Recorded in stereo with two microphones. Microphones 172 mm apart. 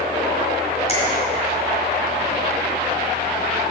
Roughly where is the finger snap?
Left.